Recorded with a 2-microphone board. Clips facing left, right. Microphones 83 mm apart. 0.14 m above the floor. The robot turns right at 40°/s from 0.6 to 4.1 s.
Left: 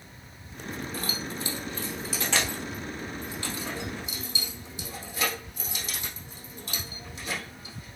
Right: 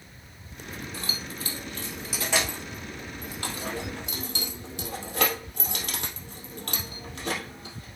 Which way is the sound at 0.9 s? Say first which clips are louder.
Left 3 dB; 45° left (ahead or behind).